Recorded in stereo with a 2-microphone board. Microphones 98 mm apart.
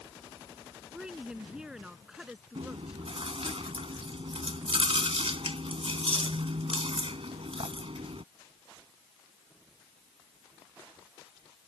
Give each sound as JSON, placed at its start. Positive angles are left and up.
{"t": 0.9, "sound": "a woman speaking", "side_deg": -10}
{"t": 2.5, "sound": "chewing", "side_deg": -80}